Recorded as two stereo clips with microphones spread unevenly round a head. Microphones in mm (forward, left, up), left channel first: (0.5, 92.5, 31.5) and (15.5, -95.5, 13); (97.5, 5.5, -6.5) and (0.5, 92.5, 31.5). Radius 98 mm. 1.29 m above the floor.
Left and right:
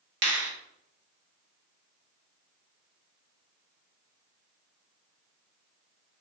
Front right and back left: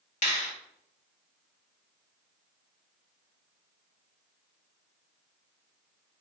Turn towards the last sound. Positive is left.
turn(degrees=-70)